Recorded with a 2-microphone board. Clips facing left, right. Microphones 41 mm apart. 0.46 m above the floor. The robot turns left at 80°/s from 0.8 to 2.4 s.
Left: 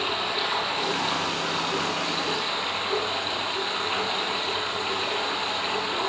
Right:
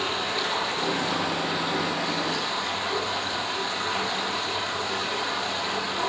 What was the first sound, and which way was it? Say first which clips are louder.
Running water: even; 160° left.